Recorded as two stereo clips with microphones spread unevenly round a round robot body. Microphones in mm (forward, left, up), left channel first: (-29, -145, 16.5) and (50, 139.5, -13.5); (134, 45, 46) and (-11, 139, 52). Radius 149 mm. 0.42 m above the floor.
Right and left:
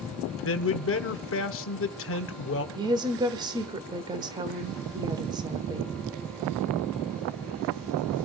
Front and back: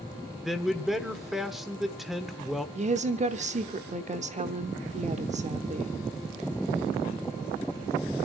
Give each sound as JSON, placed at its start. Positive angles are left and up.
{"t": 0.4, "sound": "a man speaking", "azimuth_deg": -120, "distance_m": 1.1}
{"t": 2.8, "sound": "a woman speaking", "azimuth_deg": 135, "distance_m": 1.1}